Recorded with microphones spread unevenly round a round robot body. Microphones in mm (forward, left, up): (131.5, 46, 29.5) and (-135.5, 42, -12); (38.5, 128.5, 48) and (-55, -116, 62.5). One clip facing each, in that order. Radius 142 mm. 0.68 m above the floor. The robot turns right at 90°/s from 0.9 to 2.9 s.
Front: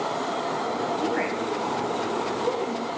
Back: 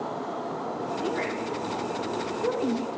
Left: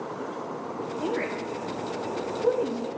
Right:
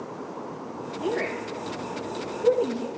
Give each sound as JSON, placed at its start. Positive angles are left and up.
{"t": 1.0, "sound": "a woman speaking", "azimuth_deg": -15, "distance_m": 4.0}